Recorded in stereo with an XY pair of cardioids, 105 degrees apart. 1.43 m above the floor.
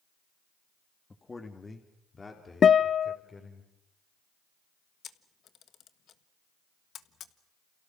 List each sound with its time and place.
1.1 s a man speaking: 20° left, 2 m; by 3.6 s 30° left, 5 m
2.6 s a guitar: 45° left, 0.6 m
5.0 s a camera shutter: 60° left, 1.4 m